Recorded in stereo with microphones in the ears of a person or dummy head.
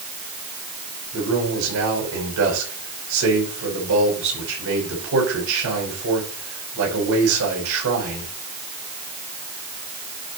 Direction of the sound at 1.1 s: 90° right.